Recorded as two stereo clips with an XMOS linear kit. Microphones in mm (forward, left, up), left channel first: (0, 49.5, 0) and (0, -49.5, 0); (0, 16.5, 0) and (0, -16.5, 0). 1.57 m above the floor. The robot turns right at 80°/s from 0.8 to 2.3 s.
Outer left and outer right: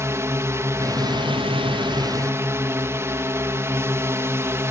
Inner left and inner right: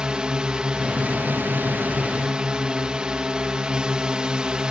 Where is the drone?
150° right; by 4.7 s 30° right.